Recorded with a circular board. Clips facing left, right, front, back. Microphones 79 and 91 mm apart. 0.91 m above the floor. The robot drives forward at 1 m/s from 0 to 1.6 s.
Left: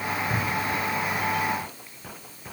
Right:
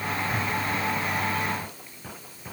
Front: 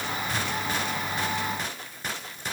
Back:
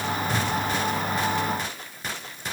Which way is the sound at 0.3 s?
130° left.